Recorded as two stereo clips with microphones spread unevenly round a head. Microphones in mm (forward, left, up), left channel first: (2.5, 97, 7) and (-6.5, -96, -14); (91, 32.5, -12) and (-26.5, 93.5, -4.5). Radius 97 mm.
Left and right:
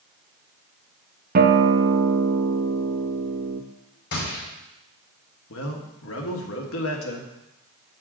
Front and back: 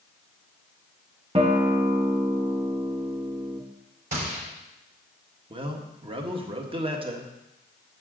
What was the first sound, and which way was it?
A guitar, 140° right.